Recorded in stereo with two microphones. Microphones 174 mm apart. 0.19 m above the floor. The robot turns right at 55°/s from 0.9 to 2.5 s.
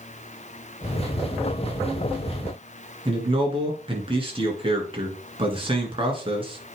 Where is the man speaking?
30° right (ahead or behind), 2.5 m.